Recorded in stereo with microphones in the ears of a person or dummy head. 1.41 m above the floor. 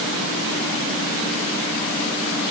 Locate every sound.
Only background noise.